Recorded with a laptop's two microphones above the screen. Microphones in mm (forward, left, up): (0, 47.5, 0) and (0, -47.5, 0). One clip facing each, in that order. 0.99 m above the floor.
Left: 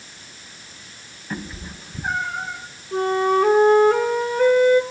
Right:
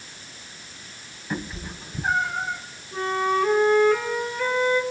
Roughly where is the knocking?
I don't hear knocking.